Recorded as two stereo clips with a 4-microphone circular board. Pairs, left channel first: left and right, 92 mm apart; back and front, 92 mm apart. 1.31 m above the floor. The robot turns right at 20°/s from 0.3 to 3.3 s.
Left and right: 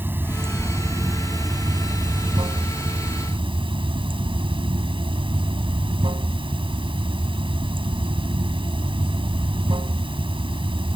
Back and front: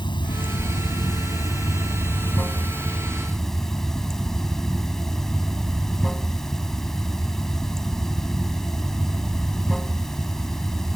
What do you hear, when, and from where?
0.0 s running water: 155° right; by 11.0 s 95° right